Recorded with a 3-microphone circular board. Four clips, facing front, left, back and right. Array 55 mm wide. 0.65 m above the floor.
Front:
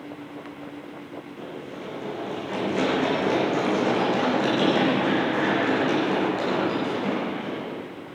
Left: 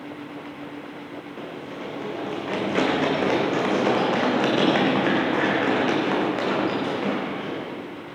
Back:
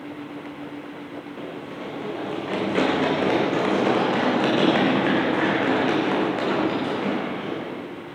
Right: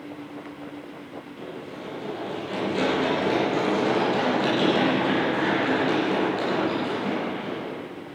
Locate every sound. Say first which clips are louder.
1.4 s running footsteps: left 2 dB, back 2 dB; 135° left, 7.5 m; by 7.7 s 125° left, 11 m